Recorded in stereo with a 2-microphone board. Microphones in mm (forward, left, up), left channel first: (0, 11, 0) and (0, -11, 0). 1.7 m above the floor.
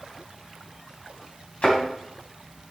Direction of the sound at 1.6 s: 65° left (ahead or behind).